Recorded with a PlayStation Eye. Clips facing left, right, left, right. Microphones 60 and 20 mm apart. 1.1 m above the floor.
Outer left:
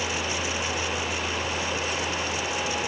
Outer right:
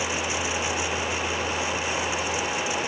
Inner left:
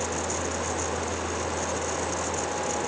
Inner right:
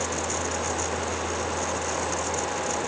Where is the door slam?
I don't hear a door slam.